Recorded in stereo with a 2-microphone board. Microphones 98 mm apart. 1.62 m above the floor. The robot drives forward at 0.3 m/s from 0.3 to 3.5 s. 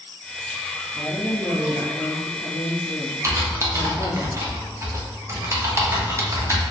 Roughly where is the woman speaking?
Left.